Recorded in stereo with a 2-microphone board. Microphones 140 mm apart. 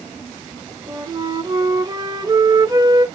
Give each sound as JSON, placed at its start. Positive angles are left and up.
{"t": 0.9, "sound": "a flute", "side_deg": -30, "distance_m": 1.1}